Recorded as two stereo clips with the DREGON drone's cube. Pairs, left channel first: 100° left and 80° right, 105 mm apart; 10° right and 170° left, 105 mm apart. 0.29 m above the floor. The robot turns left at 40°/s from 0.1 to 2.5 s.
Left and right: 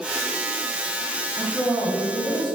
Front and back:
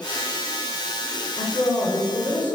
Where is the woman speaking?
25° right, 1.3 m; by 2.6 s 70° right, 1.3 m.